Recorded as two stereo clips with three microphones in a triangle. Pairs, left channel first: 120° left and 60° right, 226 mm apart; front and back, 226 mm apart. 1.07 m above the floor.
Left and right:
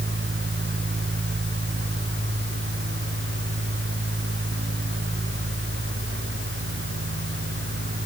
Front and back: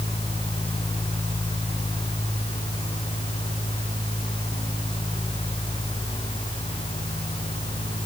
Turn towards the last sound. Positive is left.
No sound to turn to.